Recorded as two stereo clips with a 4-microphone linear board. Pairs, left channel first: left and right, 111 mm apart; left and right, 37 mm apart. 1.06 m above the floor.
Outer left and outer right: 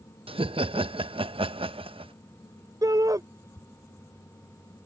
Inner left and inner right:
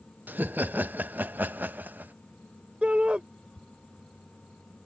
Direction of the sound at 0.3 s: 55° right (ahead or behind).